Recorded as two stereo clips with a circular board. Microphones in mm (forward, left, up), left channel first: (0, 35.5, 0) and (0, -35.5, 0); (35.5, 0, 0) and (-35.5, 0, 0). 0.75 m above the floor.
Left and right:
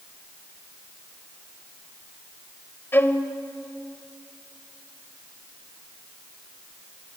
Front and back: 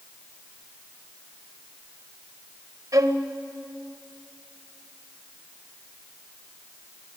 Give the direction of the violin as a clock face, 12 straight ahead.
7 o'clock.